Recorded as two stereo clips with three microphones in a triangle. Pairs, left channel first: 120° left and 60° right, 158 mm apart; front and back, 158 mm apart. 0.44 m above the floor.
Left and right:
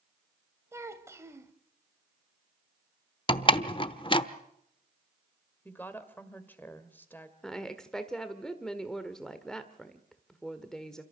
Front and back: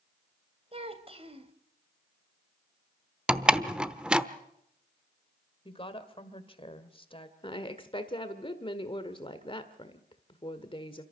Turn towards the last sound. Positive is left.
turn(degrees=35)